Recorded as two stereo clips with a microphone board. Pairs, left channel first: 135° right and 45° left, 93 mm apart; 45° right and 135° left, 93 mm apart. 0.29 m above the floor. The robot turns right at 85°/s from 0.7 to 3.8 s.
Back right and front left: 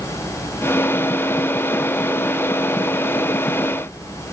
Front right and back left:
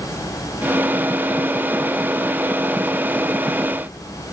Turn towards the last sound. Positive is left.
No sound to turn to.